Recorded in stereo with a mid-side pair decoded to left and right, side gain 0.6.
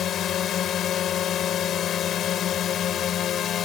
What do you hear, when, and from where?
0.0 s a drone: 55° left